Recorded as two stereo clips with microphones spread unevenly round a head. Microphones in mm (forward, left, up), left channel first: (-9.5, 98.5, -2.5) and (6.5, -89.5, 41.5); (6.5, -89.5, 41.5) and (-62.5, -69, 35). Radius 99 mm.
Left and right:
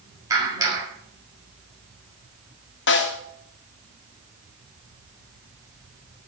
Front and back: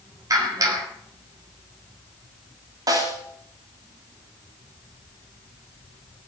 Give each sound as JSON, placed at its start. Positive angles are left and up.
{"t": 0.3, "sound": "a clap", "azimuth_deg": -160, "distance_m": 6.0}
{"t": 2.9, "sound": "a snare drum", "azimuth_deg": 115, "distance_m": 2.0}